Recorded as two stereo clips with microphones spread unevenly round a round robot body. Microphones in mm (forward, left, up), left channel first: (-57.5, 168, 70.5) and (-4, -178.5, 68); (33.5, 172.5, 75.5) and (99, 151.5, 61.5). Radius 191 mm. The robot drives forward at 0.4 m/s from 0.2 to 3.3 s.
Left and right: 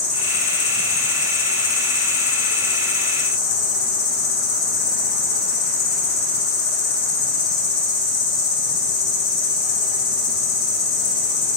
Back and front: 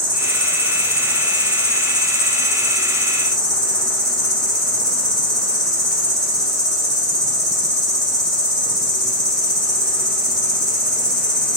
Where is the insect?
50° left, 1.9 m; by 11.6 s 90° left, 1.4 m.